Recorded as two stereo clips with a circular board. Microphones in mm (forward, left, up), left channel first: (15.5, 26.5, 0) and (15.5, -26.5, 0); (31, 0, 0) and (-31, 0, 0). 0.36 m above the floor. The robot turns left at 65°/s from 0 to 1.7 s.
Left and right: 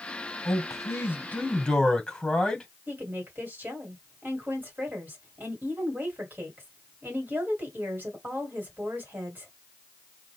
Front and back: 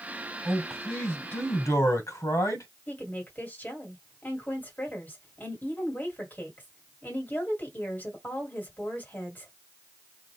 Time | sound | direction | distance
0.5 | a man speaking | 90° left | 1.9 m
2.9 | a woman speaking | 50° right | 2 m